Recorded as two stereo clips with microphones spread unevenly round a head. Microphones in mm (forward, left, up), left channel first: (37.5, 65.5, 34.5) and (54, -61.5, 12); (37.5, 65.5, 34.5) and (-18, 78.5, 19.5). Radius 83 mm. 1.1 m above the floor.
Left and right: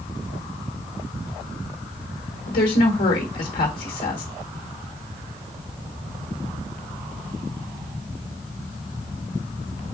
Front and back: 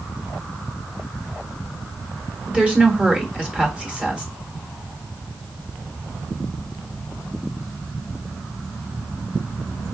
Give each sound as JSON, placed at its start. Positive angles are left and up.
{"t": 2.5, "sound": "a woman speaking", "azimuth_deg": 100, "distance_m": 1.2}